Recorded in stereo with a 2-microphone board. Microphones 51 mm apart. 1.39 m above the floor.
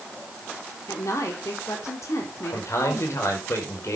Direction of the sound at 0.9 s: 80° left.